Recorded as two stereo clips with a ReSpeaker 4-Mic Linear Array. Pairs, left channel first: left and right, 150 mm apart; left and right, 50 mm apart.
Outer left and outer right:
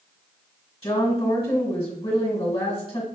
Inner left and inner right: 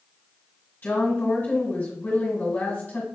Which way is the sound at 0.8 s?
30° left (ahead or behind).